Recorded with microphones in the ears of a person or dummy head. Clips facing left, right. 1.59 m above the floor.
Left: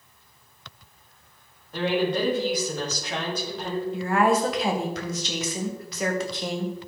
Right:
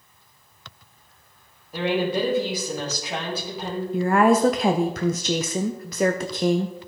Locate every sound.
1.7 s a woman speaking: 10° right (ahead or behind), 1.6 m
3.9 s a woman speaking: 45° right (ahead or behind), 0.5 m